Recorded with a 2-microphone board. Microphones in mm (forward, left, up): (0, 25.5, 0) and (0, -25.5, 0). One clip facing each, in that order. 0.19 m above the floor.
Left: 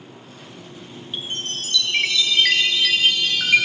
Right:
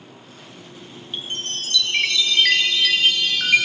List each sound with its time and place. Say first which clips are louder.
1.1 s a chime: even; centre (ahead or behind), 1.2 m